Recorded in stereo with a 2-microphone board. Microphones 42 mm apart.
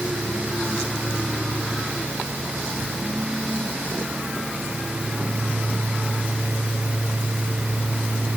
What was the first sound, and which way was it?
Only background noise.